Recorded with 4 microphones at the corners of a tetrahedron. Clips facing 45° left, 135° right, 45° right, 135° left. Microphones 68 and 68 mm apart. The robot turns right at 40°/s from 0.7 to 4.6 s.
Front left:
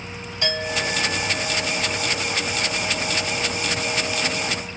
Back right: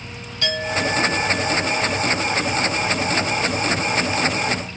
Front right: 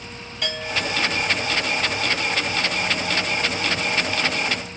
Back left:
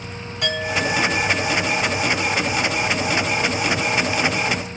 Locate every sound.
0.4 s a clink: 115° left, 4 m; by 4.7 s 90° right, 4 m